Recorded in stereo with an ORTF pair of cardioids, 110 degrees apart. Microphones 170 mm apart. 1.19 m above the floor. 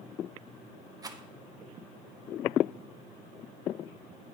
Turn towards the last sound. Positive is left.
turn(degrees=-20)